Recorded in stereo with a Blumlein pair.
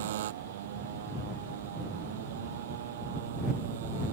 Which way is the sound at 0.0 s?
60° right.